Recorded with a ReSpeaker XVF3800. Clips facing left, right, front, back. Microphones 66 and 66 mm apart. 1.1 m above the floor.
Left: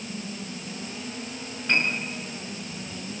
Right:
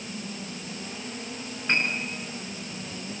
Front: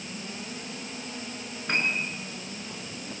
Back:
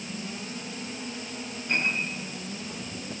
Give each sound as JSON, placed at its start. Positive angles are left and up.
{"t": 1.7, "sound": "a piano", "azimuth_deg": -25, "distance_m": 6.0}